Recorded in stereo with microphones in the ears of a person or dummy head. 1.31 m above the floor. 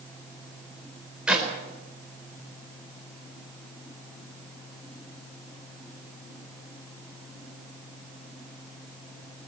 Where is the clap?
Centre (ahead or behind), 4.5 m.